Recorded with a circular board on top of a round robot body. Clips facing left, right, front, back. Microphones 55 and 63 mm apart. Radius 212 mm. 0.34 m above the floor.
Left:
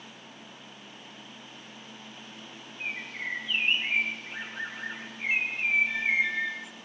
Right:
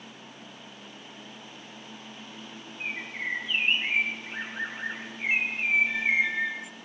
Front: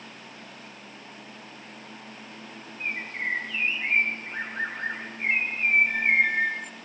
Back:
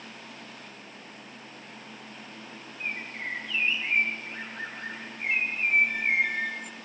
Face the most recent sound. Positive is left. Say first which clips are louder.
# right 2 dB, front 4 dB
turn(degrees=-25)